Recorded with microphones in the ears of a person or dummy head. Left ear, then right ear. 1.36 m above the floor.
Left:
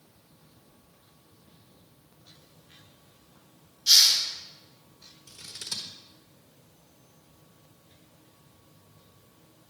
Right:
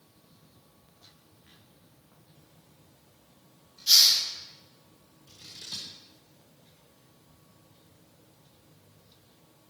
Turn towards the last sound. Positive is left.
turn(degrees=45)  # may be behind; listen again after turning